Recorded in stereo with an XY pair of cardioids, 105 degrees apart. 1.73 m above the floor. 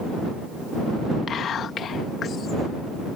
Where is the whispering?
60° left.